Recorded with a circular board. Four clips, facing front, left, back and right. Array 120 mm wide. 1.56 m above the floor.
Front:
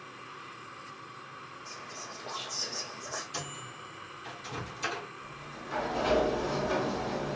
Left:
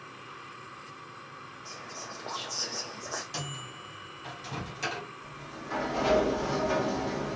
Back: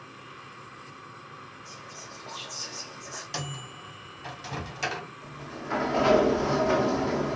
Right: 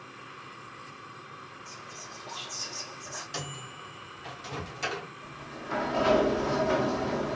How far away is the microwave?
About 1.0 m.